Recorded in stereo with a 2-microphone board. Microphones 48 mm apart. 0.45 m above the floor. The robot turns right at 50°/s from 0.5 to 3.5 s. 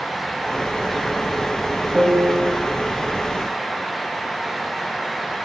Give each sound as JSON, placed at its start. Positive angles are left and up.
{"t": 1.9, "sound": "a piano", "side_deg": -80, "distance_m": 0.9}